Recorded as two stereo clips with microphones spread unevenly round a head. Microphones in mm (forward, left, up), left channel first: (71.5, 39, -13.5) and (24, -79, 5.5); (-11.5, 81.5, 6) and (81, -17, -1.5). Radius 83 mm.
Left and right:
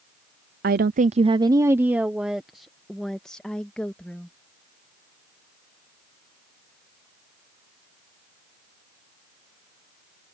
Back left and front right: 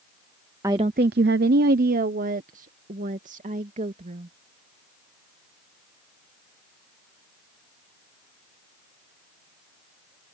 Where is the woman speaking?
125° right; by 4.3 s 15° right.